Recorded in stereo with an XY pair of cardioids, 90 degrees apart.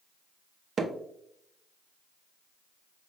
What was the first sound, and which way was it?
Hammering, 50° right.